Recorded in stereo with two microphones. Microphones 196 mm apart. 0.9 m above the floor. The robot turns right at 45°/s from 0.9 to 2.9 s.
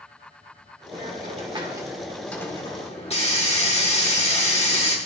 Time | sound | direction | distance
0.9 | a hiss | 55° right | 1.5 m